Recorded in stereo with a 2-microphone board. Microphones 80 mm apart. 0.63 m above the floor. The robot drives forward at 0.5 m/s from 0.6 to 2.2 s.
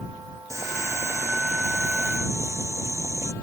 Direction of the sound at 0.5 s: 40° right (ahead or behind).